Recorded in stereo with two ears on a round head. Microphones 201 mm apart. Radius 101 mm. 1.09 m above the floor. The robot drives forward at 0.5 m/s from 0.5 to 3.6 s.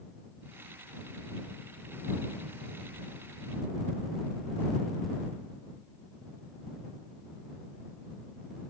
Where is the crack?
I don't hear a crack.